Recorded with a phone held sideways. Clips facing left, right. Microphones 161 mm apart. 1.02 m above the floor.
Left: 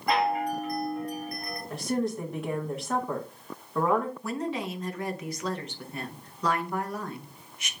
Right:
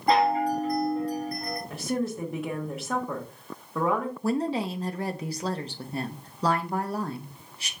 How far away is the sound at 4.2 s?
About 1.0 m.